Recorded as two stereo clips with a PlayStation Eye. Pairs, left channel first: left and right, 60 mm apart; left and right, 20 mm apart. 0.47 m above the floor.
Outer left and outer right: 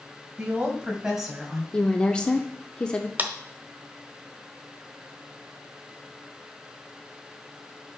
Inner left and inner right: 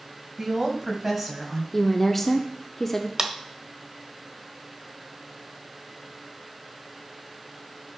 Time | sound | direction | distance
0.4 | a woman speaking | 20° right (ahead or behind) | 2.5 m
1.7 | a woman speaking | 15° left (ahead or behind) | 0.7 m
3.2 | a clap | 30° right (ahead or behind) | 1.2 m